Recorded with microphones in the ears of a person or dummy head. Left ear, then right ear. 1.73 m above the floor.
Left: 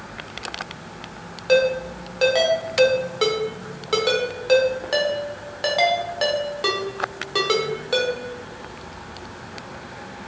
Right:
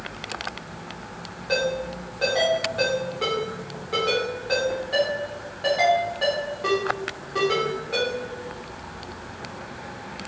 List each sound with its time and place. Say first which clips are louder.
1.5 s a ringtone: left 6 dB; 40° left (ahead or behind), 0.9 m